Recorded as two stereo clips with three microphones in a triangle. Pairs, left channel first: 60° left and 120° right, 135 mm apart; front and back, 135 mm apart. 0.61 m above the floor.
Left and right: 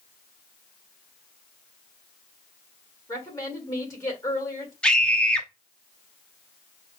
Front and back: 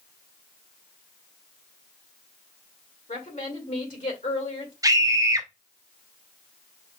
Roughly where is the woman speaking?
Ahead.